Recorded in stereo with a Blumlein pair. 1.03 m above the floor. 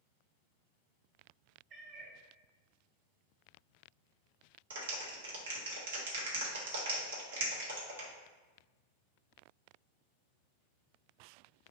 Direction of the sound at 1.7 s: 35° right.